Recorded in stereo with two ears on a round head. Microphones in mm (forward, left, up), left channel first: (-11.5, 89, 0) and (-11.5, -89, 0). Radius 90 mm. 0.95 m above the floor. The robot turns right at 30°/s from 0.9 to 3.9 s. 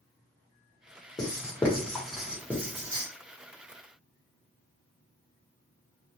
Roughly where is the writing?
Left.